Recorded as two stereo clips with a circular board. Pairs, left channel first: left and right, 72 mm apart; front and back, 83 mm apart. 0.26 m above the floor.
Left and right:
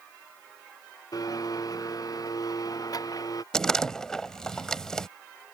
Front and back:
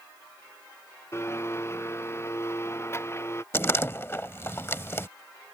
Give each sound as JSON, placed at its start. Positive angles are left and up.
{"t": 1.1, "sound": "a blender", "azimuth_deg": 55}
{"t": 3.5, "sound": "a door slam", "azimuth_deg": 20}